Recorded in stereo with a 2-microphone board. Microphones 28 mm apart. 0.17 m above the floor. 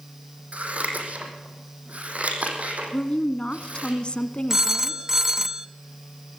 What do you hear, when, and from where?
0.5 s scissors: 60° right (ahead or behind), 4.5 m
2.9 s a woman speaking: 40° left (ahead or behind), 1.5 m
4.5 s a phone ringing: 20° right (ahead or behind), 0.6 m